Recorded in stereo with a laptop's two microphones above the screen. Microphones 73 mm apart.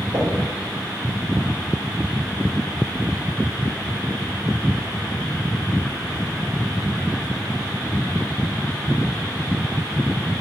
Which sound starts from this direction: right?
Knocking, at 0.1 s.